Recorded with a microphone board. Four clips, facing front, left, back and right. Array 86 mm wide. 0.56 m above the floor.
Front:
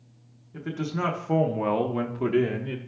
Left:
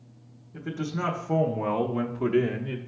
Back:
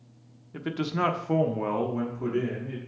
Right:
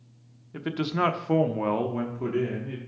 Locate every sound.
0.5 s a man speaking: 120° right, 0.9 m; by 2.8 s 30° left, 0.9 m